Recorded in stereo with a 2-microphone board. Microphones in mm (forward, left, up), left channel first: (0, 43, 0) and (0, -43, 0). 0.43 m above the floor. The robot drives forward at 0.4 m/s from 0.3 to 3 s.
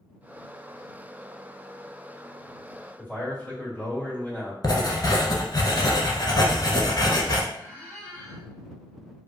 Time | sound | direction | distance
3.0 | a man speaking | 20° left (ahead or behind) | 1.5 m
4.6 | writing | 55° left (ahead or behind) | 0.6 m
7.5 | a squeak | 25° left (ahead or behind) | 1.6 m